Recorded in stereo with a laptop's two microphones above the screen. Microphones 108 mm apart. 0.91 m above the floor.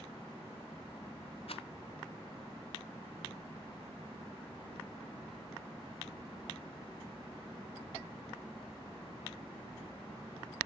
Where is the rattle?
60° left (ahead or behind), 0.5 m.